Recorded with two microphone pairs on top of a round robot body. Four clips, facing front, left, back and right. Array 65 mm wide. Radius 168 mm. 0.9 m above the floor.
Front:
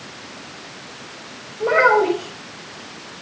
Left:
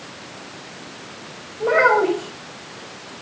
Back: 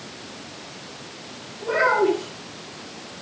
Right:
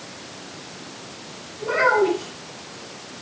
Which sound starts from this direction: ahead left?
A child speaking, at 1.6 s.